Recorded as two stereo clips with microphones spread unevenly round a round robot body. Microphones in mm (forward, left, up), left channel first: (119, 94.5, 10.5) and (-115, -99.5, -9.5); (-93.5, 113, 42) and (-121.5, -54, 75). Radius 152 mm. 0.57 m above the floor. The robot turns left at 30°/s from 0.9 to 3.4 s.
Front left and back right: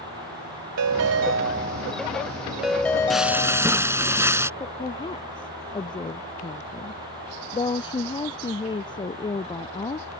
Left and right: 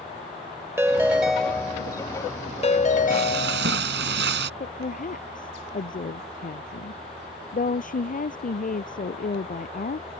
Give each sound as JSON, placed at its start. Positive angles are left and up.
{"t": 0.8, "sound": "a ringtone", "azimuth_deg": -175}
{"t": 3.1, "sound": "frying", "azimuth_deg": -50}
{"t": 4.6, "sound": "a woman speaking", "azimuth_deg": 115}